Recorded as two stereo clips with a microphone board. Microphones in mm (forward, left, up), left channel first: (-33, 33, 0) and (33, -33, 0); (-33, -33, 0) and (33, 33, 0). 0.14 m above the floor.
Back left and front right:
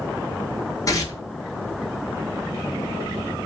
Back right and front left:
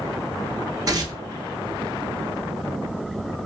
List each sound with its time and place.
0.9 s tearing paper: 85° left, 0.7 m